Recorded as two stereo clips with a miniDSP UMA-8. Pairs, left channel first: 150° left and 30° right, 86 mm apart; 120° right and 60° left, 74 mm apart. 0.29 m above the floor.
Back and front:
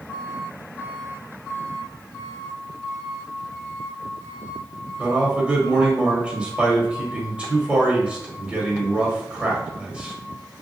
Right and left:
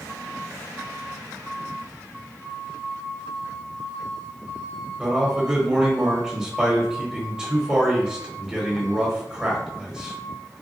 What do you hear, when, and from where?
5.0 s a man speaking: 10° left, 1.0 m